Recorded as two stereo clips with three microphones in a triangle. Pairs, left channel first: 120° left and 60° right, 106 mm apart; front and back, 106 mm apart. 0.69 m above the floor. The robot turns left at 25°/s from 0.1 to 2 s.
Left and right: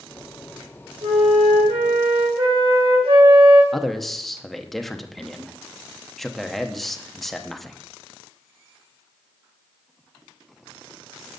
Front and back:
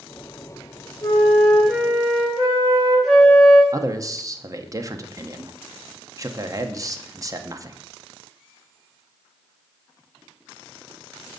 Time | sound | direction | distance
1.0 | a flute | 65° right | 3.5 m
3.7 | a man speaking | 150° right | 0.7 m